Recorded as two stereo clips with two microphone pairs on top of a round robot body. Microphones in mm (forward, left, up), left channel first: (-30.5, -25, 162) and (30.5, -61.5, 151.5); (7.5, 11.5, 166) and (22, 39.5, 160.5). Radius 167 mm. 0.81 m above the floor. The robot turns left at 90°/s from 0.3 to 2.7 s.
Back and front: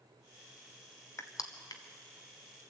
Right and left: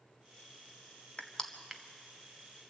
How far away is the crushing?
About 1.5 m.